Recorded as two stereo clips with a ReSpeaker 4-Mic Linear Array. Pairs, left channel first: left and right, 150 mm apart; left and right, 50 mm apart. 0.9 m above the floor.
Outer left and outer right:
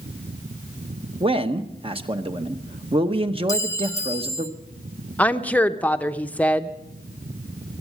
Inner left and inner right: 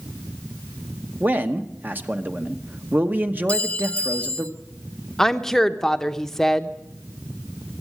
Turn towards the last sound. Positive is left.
turn(degrees=10)  # may be behind; listen again after turning